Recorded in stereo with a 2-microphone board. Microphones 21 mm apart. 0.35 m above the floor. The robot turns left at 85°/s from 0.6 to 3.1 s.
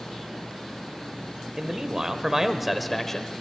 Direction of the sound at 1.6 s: 70° right.